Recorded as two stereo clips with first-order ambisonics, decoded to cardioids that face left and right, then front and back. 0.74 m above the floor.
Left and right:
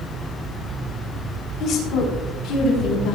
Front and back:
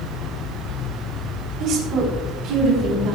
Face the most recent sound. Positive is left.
turn(degrees=135)